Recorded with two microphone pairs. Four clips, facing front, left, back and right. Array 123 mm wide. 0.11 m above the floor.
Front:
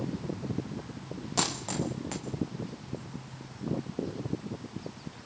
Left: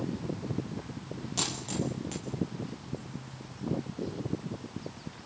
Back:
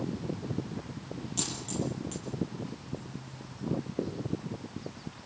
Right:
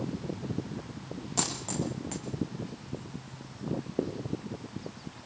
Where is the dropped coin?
20° right, 4 m.